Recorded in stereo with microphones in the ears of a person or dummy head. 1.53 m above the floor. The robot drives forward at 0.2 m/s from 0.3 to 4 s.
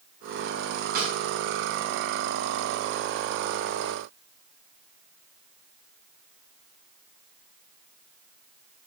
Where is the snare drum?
50° right (ahead or behind), 1.6 m.